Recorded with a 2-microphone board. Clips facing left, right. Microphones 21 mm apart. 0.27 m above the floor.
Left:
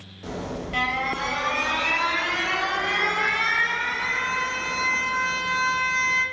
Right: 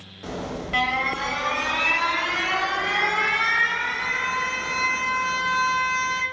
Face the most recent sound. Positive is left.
turn(degrees=-25)  # may be behind; listen again after turning